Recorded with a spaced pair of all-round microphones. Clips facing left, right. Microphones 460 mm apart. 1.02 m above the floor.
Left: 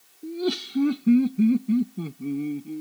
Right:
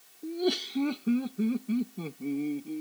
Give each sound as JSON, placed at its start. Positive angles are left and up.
{"t": 0.2, "sound": "laughter", "side_deg": 20}